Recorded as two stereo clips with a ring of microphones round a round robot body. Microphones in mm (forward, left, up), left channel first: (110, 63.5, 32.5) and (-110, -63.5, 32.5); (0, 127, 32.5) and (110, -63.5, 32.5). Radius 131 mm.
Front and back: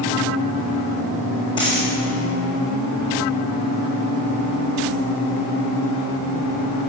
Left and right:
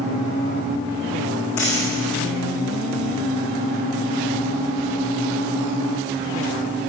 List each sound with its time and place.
1.6 s a dropped coin: 105° left, 4 m